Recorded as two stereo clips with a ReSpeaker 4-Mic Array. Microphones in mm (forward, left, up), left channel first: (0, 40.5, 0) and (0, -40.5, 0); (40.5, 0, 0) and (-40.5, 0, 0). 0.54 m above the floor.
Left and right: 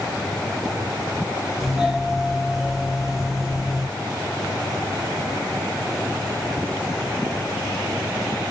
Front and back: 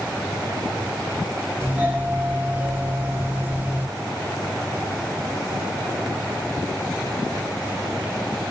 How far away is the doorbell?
About 1.5 m.